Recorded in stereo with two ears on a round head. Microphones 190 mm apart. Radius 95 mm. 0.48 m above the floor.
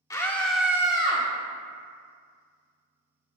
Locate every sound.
0.1 s a scream: 15° left (ahead or behind), 0.9 m; by 1.2 s 25° right (ahead or behind), 0.9 m